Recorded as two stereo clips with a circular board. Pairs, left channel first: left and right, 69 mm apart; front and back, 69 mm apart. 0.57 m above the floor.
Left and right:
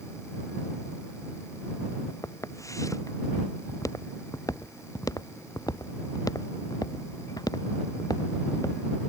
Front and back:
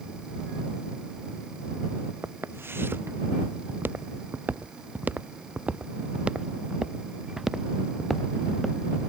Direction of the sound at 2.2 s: 130° left.